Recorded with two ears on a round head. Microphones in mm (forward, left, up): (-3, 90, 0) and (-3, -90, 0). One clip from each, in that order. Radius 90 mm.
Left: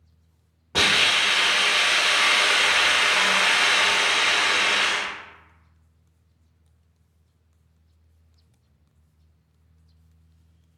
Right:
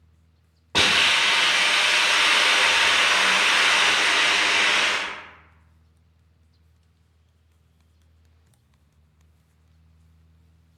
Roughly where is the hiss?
Right.